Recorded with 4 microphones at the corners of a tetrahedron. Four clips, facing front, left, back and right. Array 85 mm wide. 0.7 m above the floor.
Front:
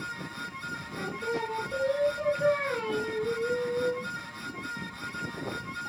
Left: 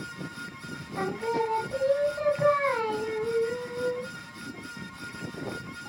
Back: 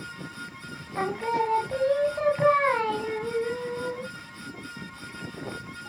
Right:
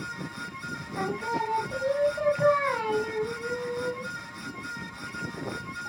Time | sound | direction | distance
0.9 | singing | 175° right | 1.4 m